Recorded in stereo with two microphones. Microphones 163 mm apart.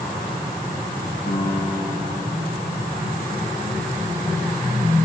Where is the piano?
70° left (ahead or behind), 5.5 m.